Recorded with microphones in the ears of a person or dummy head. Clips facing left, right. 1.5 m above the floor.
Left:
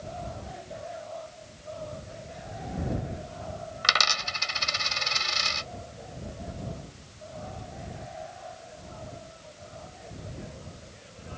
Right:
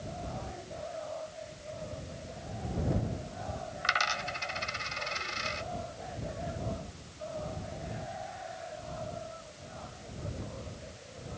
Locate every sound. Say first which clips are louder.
3.8 s a dropped coin: left 2 dB; 55° left (ahead or behind)